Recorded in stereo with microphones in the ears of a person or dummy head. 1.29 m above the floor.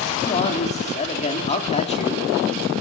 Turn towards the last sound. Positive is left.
turn(degrees=30)  # may be behind; listen again after turning